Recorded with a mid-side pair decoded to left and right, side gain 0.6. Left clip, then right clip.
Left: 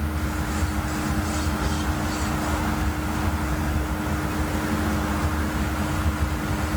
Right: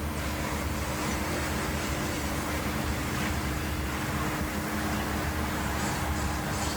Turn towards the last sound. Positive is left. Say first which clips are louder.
# left 3 dB
turn(degrees=70)